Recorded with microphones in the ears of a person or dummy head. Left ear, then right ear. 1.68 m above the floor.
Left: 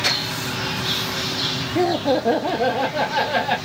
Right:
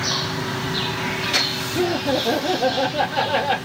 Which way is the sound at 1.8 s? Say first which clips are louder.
Left 2 dB; 80° left.